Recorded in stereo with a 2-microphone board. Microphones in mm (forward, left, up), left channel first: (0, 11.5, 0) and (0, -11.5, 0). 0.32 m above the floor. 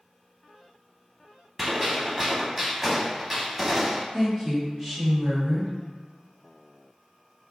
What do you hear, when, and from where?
1.6 s a gunshot: 20° right (ahead or behind), 0.6 m
4.1 s a woman speaking: 20° right (ahead or behind), 0.9 m